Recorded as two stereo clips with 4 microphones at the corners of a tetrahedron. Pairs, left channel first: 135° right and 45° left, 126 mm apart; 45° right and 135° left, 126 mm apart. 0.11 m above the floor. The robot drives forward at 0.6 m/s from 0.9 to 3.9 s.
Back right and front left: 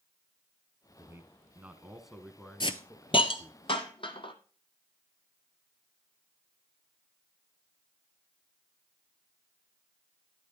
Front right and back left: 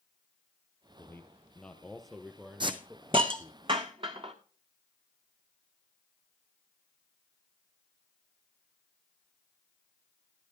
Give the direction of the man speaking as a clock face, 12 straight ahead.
12 o'clock.